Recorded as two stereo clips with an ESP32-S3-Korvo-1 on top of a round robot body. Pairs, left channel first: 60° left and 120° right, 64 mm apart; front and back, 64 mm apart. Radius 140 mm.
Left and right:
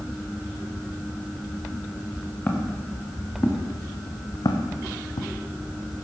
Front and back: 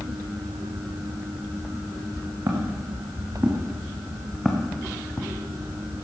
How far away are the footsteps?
About 4.5 m.